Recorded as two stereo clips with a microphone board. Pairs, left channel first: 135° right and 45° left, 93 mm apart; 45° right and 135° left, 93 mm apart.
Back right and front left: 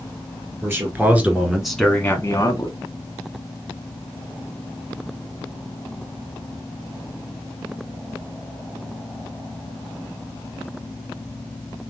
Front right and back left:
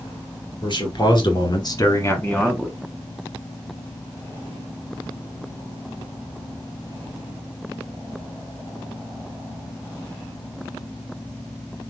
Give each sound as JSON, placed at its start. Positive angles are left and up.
{"t": 0.6, "sound": "a man speaking", "azimuth_deg": -20, "distance_m": 3.0}